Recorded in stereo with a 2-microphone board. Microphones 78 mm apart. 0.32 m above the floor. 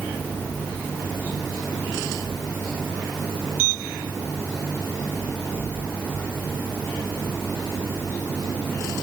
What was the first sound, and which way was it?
Only background noise.